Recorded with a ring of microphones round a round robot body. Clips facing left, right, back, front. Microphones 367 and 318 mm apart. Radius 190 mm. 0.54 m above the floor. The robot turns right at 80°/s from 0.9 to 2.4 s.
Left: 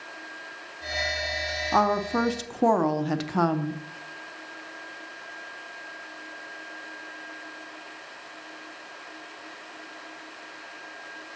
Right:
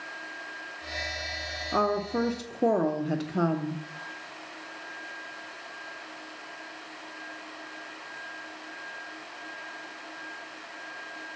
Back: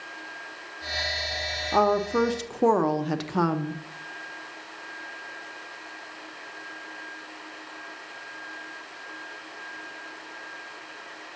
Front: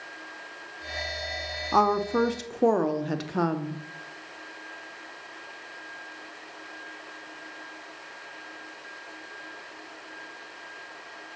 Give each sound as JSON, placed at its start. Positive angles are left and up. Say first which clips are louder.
{"t": 1.7, "sound": "a woman speaking", "louder": "left 1 dB, back 1 dB", "azimuth_deg": 50, "distance_m": 0.6}